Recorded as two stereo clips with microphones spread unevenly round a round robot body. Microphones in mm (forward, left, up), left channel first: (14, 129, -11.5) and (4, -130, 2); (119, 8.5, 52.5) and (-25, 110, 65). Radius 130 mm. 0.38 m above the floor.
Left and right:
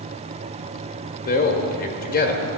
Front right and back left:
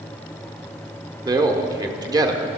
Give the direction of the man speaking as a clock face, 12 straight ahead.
9 o'clock.